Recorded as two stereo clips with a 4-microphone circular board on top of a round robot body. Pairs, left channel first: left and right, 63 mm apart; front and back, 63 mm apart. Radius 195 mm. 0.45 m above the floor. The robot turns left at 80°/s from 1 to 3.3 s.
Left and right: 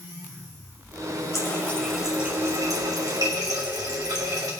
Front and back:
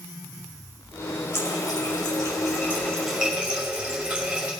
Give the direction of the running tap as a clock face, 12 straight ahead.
10 o'clock.